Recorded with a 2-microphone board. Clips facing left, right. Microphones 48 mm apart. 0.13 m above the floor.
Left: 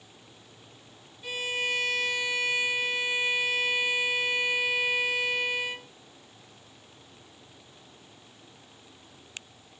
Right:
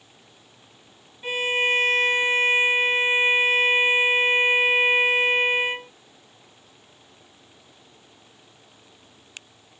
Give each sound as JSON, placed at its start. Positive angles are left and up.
{"t": 1.2, "sound": "a violin", "side_deg": -40}